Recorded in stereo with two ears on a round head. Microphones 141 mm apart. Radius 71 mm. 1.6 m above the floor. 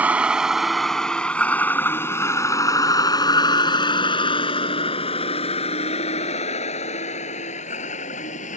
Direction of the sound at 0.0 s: 10° right (ahead or behind).